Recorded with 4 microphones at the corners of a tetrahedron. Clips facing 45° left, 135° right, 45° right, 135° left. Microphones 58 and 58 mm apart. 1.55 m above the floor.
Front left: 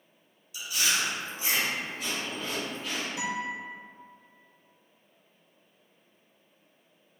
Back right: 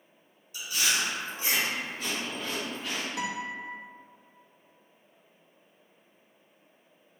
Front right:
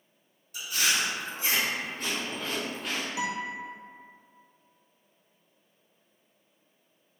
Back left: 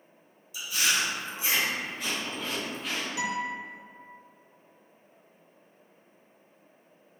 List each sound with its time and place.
0.5 s chewing: 85° right, 1.2 m
3.2 s a guitar: 115° right, 0.5 m